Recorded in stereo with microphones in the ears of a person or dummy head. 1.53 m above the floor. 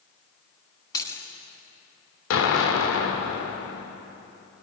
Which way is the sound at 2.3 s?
75° left (ahead or behind).